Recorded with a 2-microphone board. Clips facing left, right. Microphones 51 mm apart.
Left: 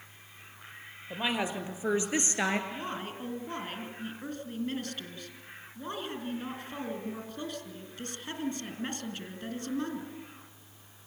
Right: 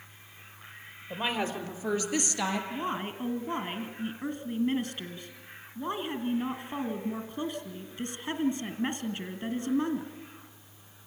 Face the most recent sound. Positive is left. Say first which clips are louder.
# right 4 dB
turn(degrees=-20)  # may be behind; listen again after turning